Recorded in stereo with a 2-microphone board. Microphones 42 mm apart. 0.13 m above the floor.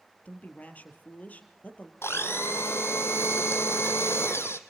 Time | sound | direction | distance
0.2 | a woman speaking | 35° left (ahead or behind) | 3 m
2.0 | a blender | 70° left (ahead or behind) | 1.7 m